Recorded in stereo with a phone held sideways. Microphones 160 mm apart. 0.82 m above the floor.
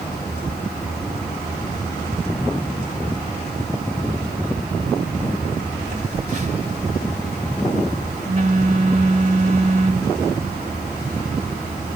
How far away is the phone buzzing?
About 2 m.